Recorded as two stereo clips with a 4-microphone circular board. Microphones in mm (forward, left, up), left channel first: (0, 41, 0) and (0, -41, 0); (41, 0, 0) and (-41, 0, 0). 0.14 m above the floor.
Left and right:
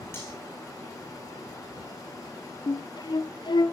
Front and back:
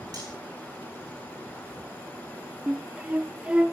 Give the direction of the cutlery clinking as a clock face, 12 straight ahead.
7 o'clock.